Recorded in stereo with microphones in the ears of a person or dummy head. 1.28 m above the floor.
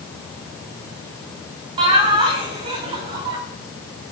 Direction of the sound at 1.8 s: 30° right (ahead or behind).